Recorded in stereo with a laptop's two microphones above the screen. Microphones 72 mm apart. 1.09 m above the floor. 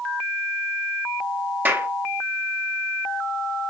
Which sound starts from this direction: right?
A clap, at 1.6 s.